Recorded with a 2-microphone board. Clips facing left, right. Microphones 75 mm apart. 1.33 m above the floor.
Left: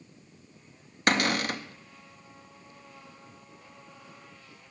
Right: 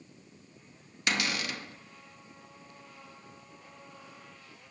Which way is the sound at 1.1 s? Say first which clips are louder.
Left 6 dB; 50° left (ahead or behind).